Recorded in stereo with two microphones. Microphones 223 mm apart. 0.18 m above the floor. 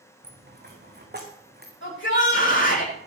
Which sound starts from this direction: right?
A dropped coin, at 0.2 s.